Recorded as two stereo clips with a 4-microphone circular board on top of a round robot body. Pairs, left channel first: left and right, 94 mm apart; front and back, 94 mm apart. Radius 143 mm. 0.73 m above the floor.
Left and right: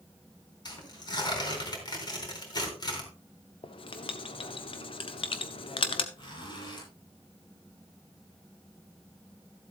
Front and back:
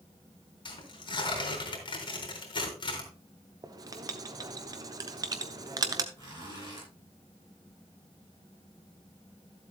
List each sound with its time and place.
0.7 s tearing paper: 45° left, 4 m
3.6 s writing: 125° left, 1.0 m
6.2 s a zipper: 130° left, 7 m